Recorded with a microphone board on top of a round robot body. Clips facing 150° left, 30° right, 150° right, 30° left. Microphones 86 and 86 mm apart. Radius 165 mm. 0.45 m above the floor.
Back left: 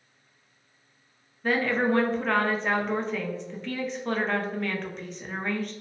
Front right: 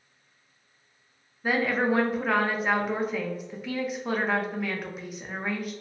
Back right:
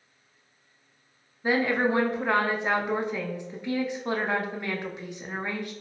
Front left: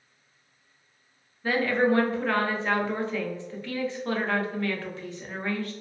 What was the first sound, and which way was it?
A woman speaking, 100° right.